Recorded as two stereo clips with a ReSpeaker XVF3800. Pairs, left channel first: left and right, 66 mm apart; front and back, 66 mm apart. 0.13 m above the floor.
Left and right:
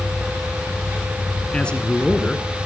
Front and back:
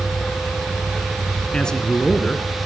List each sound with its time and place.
1.5 s a man speaking: 50° left, 1.1 m